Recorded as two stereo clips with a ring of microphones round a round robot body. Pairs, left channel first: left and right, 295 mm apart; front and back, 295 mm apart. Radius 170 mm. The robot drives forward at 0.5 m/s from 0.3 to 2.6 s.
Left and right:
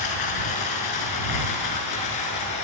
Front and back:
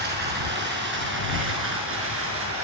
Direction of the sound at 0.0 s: 120° left.